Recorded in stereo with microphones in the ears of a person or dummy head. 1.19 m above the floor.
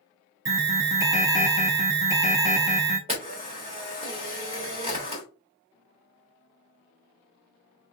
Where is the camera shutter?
30° right (ahead or behind), 1.6 m.